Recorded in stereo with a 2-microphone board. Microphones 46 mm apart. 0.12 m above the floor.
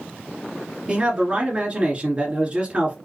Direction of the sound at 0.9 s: 30° right (ahead or behind).